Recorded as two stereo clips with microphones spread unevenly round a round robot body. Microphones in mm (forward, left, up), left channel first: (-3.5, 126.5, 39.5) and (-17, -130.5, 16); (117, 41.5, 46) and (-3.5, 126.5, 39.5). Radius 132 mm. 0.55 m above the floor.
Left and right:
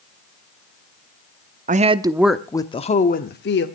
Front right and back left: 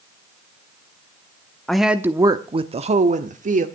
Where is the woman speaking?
125° right, 0.8 m; by 3.7 s 130° left, 1.3 m.